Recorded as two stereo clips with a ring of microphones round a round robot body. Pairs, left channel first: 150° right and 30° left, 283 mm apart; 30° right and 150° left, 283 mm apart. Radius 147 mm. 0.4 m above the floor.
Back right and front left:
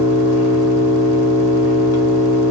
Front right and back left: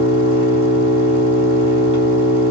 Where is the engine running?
150° right, 1.6 m.